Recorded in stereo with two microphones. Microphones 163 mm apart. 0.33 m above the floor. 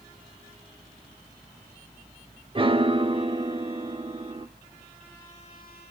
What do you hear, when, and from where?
2.5 s a piano: 35° right (ahead or behind), 0.6 m